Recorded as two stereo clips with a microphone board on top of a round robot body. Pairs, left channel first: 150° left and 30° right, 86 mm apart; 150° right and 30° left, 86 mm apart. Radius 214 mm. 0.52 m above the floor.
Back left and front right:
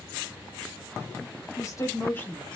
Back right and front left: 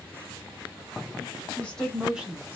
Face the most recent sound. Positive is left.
turn(degrees=75)